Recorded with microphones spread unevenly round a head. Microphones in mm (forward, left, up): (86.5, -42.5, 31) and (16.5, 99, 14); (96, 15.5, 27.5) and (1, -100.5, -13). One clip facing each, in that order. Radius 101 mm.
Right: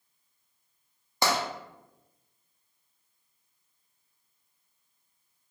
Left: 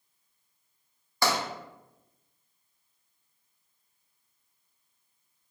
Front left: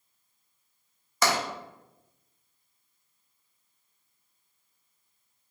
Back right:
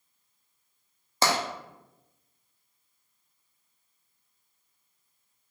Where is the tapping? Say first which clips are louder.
Even, even; 70° right, 0.5 m.